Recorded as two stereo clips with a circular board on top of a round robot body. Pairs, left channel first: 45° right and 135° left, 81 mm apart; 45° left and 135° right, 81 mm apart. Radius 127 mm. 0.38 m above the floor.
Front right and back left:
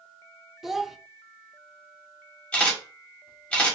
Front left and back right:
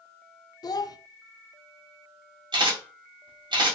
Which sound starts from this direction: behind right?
A camera shutter, at 2.5 s.